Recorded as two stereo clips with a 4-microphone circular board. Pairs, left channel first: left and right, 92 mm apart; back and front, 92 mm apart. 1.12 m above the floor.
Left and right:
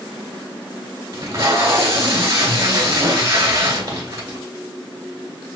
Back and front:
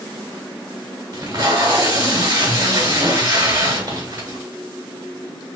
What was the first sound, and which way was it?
Tape being pulled, 40° right.